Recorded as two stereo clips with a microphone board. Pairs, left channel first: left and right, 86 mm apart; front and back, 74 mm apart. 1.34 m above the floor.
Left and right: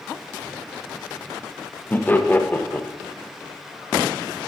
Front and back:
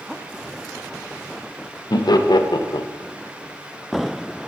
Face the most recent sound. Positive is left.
turn(degrees=20)